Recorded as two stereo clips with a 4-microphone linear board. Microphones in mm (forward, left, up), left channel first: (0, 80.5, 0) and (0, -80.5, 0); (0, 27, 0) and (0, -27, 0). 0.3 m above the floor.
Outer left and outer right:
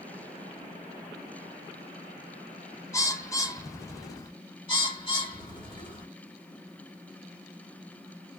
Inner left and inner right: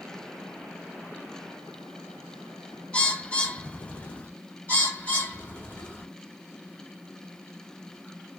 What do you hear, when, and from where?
2.9 s a bird: 20° left (ahead or behind), 0.5 m
4.7 s a bird: 30° left (ahead or behind), 1.4 m